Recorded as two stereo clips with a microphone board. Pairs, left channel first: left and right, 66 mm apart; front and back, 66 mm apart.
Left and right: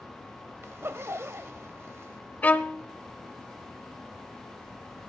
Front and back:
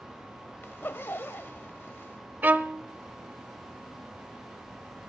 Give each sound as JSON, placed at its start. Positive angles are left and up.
{"t": 0.6, "sound": "a zipper", "azimuth_deg": -50, "distance_m": 0.7}
{"t": 2.4, "sound": "a violin", "azimuth_deg": 140, "distance_m": 1.0}